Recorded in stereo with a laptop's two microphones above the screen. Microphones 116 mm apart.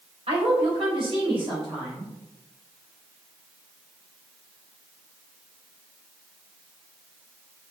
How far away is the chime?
I don't hear a chime.